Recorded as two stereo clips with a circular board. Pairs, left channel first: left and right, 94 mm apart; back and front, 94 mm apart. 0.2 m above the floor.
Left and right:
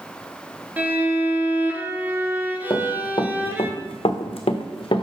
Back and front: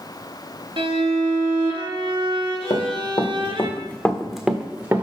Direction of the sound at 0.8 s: 20° right.